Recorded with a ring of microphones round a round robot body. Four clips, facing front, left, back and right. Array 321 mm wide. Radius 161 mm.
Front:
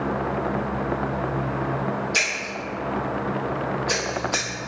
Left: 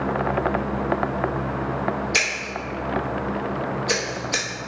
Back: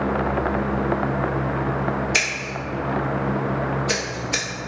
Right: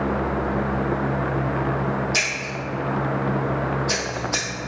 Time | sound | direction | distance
2.1 | scissors | 150° left | 0.8 m